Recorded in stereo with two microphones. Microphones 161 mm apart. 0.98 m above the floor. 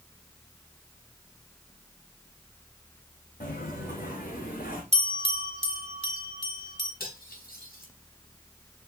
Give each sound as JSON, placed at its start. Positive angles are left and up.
{"t": 3.4, "sound": "footsteps", "side_deg": 75, "distance_m": 4.5}
{"t": 4.9, "sound": "a bell", "side_deg": -50, "distance_m": 1.8}
{"t": 7.0, "sound": "cutlery clinking", "side_deg": 85, "distance_m": 4.5}